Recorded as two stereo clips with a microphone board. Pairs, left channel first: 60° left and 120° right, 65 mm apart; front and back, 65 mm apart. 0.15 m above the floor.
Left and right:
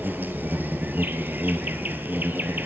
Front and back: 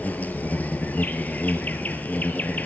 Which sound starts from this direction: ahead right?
An insect, at 0.0 s.